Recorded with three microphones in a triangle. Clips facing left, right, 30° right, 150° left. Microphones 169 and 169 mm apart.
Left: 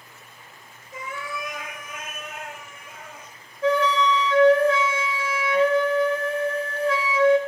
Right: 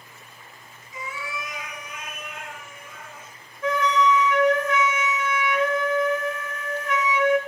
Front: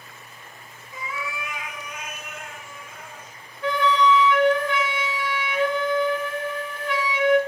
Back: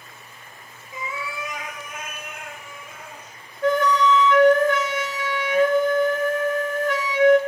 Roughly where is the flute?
Behind left.